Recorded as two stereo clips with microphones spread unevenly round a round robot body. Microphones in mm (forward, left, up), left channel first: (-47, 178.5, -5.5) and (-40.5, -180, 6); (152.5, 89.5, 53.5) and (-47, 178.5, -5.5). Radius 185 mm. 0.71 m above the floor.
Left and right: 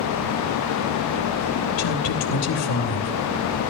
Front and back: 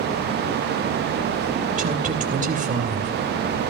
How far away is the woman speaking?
About 2.5 m.